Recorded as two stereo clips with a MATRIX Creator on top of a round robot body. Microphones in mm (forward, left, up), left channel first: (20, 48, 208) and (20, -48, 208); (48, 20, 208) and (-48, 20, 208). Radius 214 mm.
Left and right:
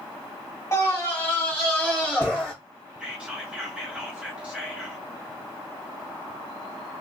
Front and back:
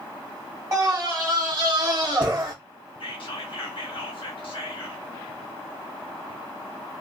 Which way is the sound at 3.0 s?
10° right.